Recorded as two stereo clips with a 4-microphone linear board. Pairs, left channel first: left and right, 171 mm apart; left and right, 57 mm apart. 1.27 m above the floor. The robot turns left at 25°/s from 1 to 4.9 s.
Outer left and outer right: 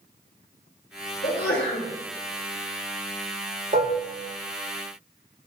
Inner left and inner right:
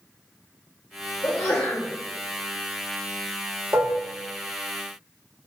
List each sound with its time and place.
1.2 s a sneeze: 65° left (ahead or behind), 0.9 m; by 1.9 s 80° left, 0.9 m
3.7 s dishes clattering: 50° right (ahead or behind), 0.8 m; by 4.0 s 55° right (ahead or behind), 0.8 m